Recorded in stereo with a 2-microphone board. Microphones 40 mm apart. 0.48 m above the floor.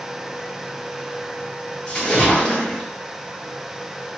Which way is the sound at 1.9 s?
25° left (ahead or behind).